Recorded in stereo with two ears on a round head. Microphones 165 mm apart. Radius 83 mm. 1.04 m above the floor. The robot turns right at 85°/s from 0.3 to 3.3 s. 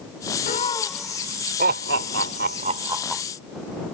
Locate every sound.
0.5 s laughter: 45° left (ahead or behind); by 3.2 s 5° left (ahead or behind)